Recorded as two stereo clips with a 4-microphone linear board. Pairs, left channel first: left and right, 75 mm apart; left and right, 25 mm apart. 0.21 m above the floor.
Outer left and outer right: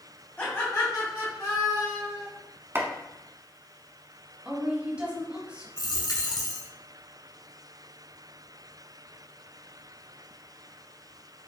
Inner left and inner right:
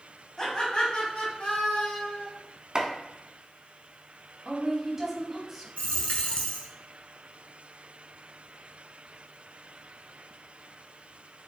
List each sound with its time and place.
0.4 s laughter: 20° left (ahead or behind), 1.2 m; by 2.3 s 65° left (ahead or behind), 3 m
2.8 s chopping: 30° right (ahead or behind), 0.7 m
4.5 s a woman speaking: 15° right (ahead or behind), 1.1 m
5.8 s a dropped coin: 60° left (ahead or behind), 0.9 m